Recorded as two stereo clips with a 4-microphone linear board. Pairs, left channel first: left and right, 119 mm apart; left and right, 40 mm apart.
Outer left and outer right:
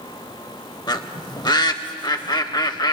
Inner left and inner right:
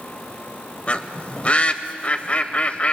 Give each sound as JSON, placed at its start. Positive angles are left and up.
{"t": 0.9, "sound": "a bird", "side_deg": 35, "distance_m": 0.6}